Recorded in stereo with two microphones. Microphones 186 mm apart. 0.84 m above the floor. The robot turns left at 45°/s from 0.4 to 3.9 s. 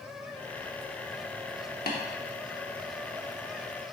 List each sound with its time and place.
1.9 s tapping: 60° left (ahead or behind), 0.8 m; by 2.0 s 65° left (ahead or behind), 0.8 m